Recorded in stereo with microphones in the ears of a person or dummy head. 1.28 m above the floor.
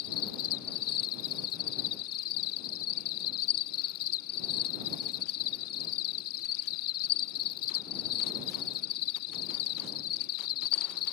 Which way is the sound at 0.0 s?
50° left (ahead or behind).